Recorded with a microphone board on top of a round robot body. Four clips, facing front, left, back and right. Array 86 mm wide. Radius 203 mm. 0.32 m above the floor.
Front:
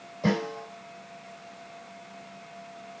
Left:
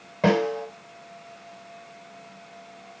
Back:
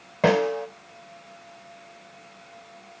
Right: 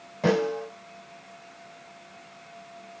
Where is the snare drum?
165° left, 4.5 m.